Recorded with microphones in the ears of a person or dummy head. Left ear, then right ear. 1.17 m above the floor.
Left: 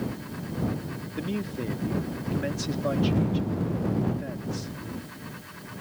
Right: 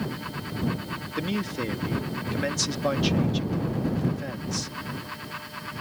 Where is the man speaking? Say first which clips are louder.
Right 3 dB; 35° right (ahead or behind).